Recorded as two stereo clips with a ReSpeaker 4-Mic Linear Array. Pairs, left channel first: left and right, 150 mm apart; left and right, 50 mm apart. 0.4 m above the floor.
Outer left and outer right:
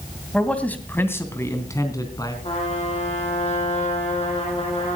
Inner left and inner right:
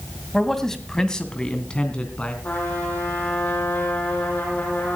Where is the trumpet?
45° left (ahead or behind), 8.5 m.